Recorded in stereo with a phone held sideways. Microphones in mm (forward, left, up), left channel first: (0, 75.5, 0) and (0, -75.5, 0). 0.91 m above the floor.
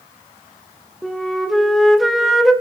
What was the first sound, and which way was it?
A flute, centre (ahead or behind).